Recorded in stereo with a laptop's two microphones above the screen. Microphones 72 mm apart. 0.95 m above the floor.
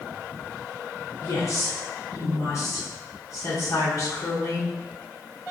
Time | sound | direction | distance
1.2 | a woman speaking | 45° left (ahead or behind) | 1.0 m